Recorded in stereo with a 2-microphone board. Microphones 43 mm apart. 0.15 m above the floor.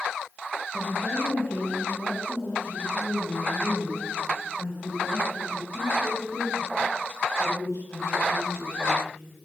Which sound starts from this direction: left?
A woman speaking, at 0.7 s.